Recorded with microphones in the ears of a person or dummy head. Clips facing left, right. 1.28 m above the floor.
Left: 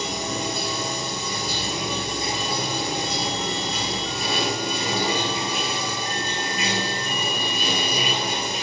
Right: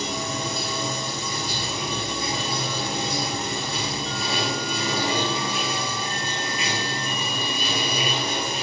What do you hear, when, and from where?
0.0 s running water: 65° left (ahead or behind), 0.9 m